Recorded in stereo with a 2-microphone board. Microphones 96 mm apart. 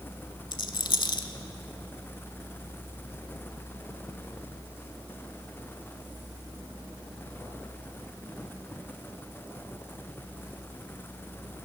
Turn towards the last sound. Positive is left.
turn(degrees=55)  # may be behind; listen again after turning